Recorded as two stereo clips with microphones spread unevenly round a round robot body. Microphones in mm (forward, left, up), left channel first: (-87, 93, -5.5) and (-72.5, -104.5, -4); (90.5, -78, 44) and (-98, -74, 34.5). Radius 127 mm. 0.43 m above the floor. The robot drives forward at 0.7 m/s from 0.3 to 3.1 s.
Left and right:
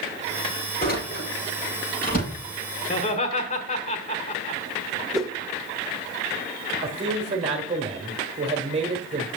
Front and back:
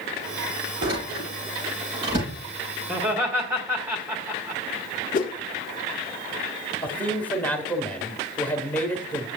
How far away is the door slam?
About 6.5 m.